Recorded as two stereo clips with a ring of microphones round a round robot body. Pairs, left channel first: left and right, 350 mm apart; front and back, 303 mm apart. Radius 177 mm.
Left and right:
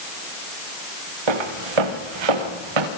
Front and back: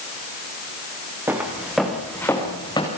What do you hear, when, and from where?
1.3 s footsteps: 95° right, 4.5 m; by 2.9 s 75° right, 4.5 m